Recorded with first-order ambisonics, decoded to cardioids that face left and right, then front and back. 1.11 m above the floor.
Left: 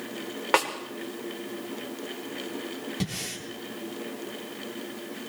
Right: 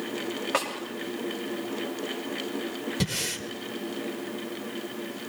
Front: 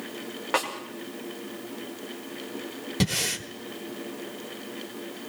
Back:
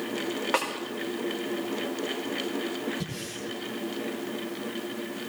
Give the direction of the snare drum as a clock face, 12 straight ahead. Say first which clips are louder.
Left 5 dB, front 1 dB; 9 o'clock.